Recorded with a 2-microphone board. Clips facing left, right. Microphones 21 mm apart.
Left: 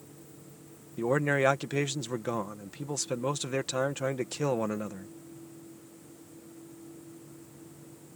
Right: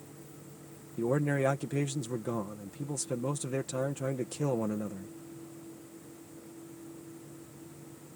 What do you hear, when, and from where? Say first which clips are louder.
1.0 s a man speaking: left 3 dB; 55° left (ahead or behind)